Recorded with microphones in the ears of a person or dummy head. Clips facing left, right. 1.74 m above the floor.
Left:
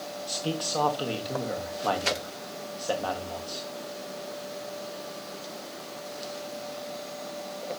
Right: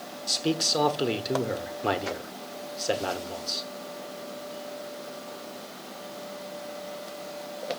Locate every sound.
0.3 s a man speaking: 25° right (ahead or behind), 1.0 m